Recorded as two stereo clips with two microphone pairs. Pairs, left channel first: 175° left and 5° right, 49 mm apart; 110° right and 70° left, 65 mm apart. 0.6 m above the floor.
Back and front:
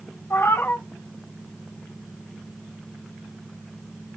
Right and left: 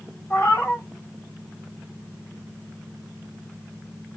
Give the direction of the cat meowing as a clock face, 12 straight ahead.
6 o'clock.